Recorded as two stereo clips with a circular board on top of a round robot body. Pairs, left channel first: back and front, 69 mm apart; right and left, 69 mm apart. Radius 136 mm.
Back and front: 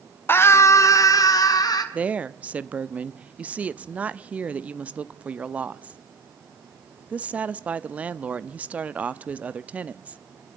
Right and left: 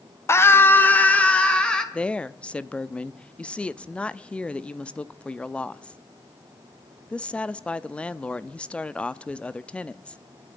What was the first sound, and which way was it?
A scream, 130° right.